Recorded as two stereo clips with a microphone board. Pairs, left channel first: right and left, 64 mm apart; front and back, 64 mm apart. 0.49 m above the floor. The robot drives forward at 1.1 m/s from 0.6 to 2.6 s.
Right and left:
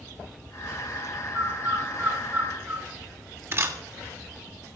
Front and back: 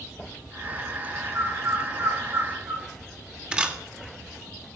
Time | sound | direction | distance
1.3 | a bird | 140° left | 2.5 m
3.5 | a camera shutter | 110° left | 1.6 m